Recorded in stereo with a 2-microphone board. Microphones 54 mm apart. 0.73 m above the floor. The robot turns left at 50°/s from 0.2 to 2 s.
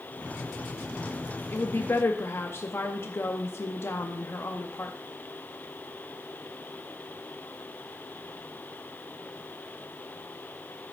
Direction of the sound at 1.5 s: 40° left (ahead or behind).